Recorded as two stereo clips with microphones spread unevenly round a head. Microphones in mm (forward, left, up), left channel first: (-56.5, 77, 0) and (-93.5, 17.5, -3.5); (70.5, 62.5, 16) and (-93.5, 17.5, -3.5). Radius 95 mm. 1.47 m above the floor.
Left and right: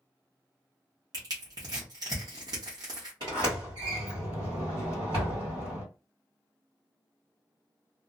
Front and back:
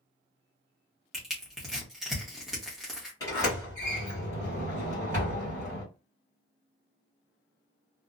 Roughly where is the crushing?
Right.